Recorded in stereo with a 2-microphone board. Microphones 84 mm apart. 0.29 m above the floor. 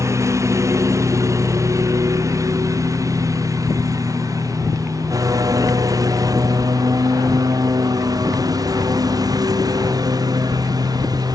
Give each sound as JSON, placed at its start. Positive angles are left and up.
{"t": 0.0, "sound": "a lawn mower", "side_deg": -35}